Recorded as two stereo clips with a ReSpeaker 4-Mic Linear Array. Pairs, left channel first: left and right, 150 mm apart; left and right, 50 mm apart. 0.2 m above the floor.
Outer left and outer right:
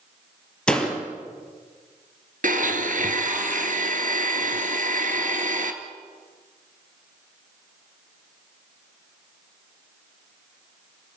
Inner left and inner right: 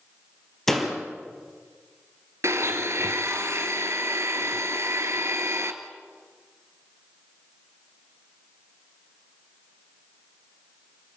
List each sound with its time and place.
0.7 s a door slam: 5° left (ahead or behind), 4 m
2.4 s a blender: 65° right (ahead or behind), 1.7 m